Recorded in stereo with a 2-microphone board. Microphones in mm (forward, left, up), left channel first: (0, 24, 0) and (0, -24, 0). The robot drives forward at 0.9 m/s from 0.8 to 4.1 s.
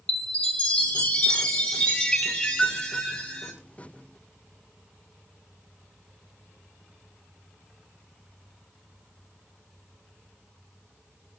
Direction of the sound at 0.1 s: 20° left (ahead or behind).